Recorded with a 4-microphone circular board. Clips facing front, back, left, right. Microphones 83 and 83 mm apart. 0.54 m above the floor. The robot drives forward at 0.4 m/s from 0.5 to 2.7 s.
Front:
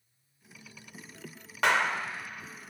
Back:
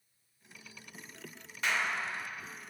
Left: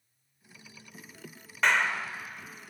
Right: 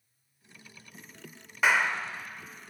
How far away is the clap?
About 1.3 m.